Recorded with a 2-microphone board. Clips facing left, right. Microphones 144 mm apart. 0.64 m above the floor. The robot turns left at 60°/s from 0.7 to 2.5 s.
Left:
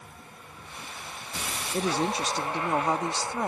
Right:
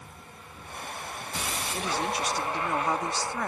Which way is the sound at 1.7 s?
80° left.